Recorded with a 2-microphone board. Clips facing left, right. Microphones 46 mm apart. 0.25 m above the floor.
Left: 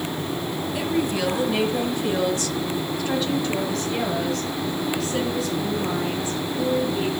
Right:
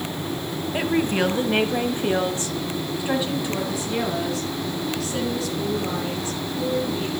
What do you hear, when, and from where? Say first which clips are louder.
0.7 s a woman speaking: right 3 dB; 40° right (ahead or behind), 1.5 m; by 7.1 s 5° left (ahead or behind), 4 m